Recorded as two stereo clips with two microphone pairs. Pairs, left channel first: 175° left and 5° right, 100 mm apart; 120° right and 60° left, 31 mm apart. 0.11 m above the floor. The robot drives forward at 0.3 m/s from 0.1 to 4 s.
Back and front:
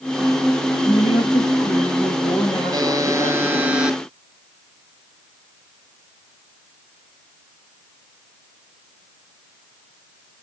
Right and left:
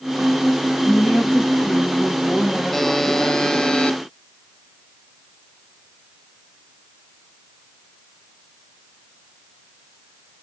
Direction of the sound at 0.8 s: Straight behind.